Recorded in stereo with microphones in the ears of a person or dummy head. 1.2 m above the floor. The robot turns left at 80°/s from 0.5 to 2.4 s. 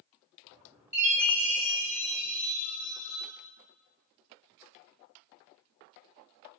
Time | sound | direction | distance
0.9 | a chime | 165° right | 1.5 m